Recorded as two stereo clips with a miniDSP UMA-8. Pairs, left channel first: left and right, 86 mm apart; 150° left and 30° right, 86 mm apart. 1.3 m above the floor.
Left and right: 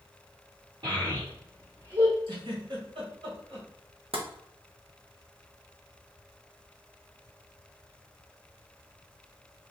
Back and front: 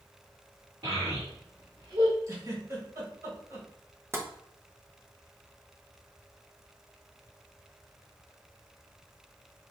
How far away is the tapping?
About 0.8 m.